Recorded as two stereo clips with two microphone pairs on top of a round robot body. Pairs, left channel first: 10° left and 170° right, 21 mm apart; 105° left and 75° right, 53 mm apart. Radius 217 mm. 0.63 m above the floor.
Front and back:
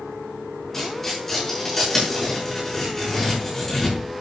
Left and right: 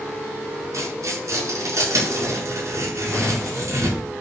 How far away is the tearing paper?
About 6.5 m.